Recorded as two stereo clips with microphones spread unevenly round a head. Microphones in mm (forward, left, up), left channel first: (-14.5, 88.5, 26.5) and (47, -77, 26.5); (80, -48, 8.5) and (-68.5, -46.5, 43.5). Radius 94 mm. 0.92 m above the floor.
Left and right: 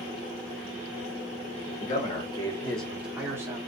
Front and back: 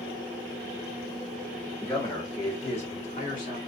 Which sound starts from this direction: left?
A man speaking, at 1.8 s.